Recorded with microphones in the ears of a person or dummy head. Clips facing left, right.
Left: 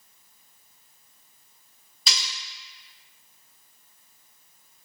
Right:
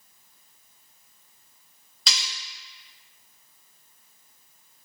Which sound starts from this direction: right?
Cutlery clinking, at 2.1 s.